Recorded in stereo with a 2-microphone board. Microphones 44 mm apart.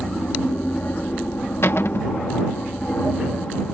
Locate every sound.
0.0 s an aircraft: 40° left (ahead or behind)
1.6 s a cupboard door: 65° left (ahead or behind)